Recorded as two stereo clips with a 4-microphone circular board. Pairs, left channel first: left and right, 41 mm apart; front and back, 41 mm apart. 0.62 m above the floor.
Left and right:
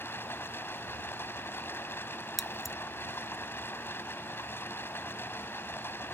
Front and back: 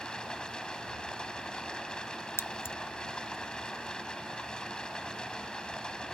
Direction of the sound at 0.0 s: 70° left.